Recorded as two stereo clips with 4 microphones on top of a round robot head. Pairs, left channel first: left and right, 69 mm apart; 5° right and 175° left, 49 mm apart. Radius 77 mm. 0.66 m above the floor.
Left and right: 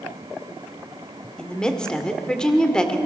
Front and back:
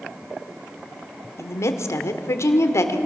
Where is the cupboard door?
I don't hear a cupboard door.